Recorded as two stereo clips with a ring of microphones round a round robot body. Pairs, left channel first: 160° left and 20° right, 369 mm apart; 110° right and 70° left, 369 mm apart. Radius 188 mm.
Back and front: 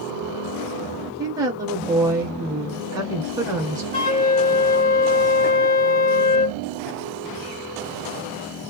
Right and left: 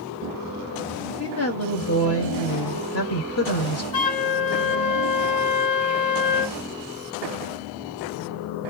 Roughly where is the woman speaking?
Right.